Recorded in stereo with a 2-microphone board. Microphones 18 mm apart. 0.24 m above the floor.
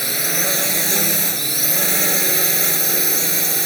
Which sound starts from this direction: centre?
A drone, at 0.0 s.